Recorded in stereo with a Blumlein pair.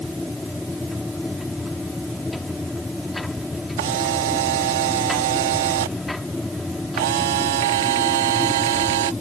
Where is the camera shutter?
55° right.